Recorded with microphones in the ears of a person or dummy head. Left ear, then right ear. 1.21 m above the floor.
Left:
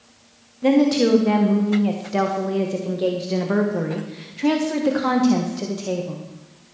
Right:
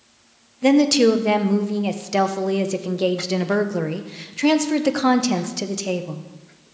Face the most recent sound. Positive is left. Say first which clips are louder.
# right 2 dB
turn(degrees=-60)  # may be behind; listen again after turning